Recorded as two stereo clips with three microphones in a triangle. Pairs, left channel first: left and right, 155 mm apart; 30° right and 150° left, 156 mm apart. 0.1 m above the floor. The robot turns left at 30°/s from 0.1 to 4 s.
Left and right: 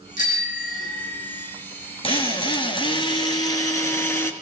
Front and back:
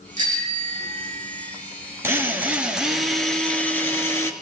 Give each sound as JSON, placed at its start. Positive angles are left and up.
{"t": 0.2, "sound": "a bicycle bell", "azimuth_deg": 120, "distance_m": 4.0}
{"t": 2.0, "sound": "a drill", "azimuth_deg": 90, "distance_m": 1.6}